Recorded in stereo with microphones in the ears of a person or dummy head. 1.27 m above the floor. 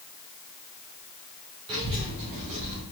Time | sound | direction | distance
1.7 | a child speaking | 25° right (ahead or behind) | 2 m